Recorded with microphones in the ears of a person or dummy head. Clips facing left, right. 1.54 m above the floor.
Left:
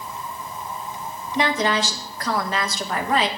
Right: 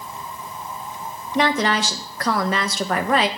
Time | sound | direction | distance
1.4 | a woman speaking | 50° right (ahead or behind) | 1.1 m